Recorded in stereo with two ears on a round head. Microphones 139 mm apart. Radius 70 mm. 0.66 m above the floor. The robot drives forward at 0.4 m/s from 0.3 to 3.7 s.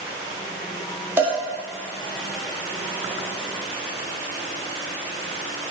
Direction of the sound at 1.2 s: 15° right (ahead or behind).